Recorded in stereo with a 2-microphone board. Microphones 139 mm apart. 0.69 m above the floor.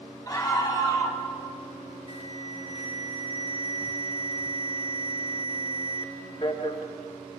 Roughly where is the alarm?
Left.